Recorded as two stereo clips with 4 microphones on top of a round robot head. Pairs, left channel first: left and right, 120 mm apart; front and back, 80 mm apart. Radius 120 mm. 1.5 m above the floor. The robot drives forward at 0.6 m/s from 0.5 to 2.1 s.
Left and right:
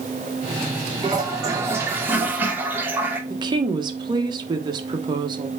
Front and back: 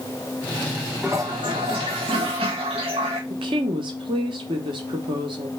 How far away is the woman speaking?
About 1.3 m.